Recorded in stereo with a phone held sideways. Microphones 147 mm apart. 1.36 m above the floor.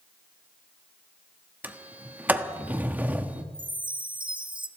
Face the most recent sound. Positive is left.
turn(degrees=-35)  # may be behind; listen again after turning